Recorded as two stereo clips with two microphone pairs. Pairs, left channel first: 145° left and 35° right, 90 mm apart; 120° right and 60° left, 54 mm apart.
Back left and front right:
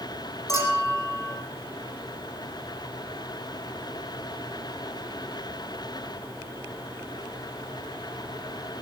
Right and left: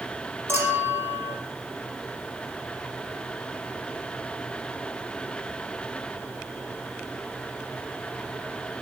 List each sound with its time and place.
0.5 s a clink: 100° left, 5 m